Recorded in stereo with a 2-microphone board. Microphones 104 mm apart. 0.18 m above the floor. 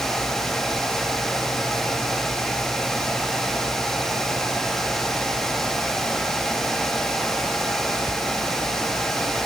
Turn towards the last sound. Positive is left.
No sound to turn to.